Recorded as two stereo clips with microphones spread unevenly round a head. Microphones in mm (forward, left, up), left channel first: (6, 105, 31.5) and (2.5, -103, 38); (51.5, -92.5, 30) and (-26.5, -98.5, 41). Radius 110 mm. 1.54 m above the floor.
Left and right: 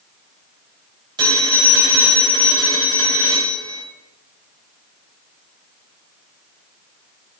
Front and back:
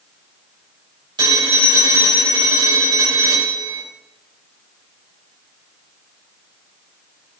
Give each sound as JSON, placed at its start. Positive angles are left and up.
{"t": 1.2, "sound": "a phone ringing", "azimuth_deg": -160, "distance_m": 4.5}